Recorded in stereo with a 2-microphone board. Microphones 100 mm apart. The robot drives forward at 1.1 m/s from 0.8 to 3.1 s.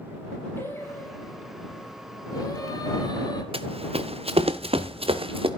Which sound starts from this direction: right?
Running footsteps, at 3.5 s.